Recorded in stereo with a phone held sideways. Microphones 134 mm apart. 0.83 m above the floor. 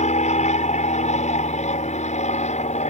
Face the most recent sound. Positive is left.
turn(degrees=60)  # may be behind; listen again after turning